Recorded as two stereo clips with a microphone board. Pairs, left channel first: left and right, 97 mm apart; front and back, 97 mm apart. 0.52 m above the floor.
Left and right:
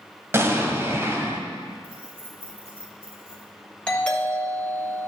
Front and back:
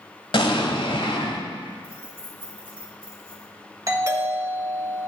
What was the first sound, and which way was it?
An explosion, 30° right.